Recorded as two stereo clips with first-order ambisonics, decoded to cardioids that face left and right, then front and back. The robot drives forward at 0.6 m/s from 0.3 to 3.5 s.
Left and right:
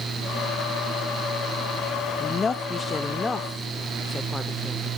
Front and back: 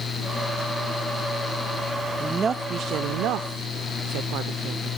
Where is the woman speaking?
110° left, 0.7 m; by 4.9 s 165° left, 1.1 m.